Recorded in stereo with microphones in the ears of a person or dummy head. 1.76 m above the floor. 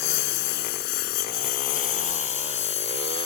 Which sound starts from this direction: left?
A lawn mower, at 0.0 s.